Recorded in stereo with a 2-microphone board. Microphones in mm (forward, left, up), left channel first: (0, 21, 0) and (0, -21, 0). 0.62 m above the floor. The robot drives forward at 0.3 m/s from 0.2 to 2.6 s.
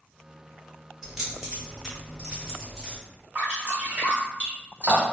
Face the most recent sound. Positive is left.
turn(degrees=-50)  # may be behind; listen again after turning